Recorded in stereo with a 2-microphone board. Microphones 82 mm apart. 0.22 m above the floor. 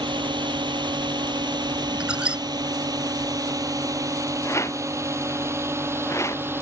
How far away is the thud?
No thud in this recording.